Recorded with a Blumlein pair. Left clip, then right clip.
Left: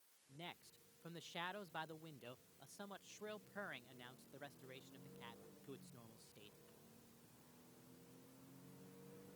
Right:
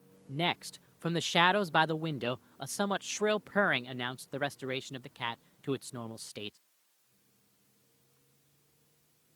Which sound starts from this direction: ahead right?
A man speaking, at 0.3 s.